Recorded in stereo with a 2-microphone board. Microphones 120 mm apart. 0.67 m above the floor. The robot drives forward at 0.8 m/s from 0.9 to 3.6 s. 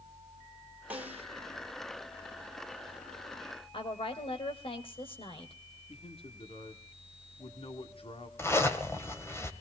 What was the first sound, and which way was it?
A snare drum, 15° right (ahead or behind).